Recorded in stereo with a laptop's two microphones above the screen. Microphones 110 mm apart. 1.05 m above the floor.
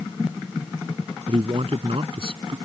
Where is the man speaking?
55° right (ahead or behind).